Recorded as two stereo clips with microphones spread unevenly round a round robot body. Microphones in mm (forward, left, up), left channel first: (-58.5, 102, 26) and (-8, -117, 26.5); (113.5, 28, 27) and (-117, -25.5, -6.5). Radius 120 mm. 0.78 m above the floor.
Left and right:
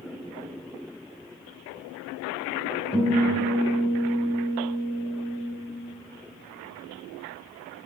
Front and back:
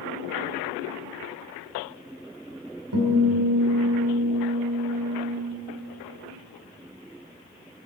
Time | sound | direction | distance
2.9 | a guitar | 170° left | 2.5 m